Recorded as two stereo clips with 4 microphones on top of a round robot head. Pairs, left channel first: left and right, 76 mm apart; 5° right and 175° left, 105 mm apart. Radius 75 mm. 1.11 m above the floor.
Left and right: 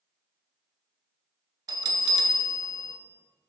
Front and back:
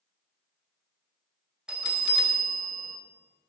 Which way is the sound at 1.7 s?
100° right.